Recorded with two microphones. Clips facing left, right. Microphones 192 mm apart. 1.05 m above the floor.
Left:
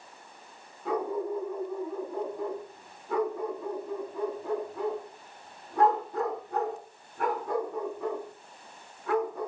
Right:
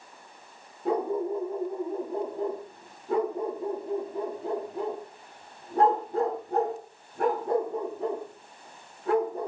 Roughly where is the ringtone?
I don't hear a ringtone.